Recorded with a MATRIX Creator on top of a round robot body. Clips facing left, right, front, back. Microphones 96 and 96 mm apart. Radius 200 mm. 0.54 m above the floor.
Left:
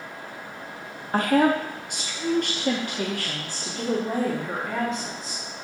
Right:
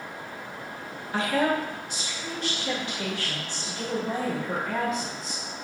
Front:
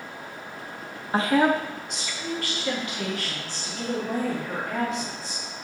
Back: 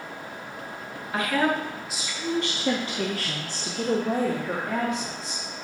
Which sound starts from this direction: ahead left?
A woman speaking, at 1.1 s.